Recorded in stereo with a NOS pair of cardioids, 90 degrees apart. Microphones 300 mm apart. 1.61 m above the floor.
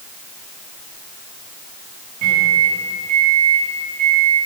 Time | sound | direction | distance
2.2 | a microwave | 65° right | 2.5 m